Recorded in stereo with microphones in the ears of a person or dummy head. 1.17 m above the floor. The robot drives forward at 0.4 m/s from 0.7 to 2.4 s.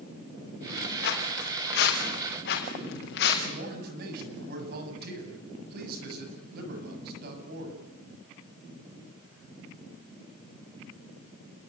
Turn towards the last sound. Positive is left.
turn(degrees=-55)  # may be behind; listen again after turning